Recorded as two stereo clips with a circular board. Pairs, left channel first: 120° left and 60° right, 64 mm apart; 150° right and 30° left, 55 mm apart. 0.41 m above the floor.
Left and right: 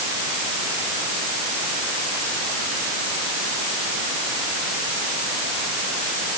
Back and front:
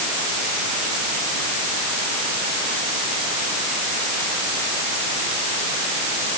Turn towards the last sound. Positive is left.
No sound to turn to.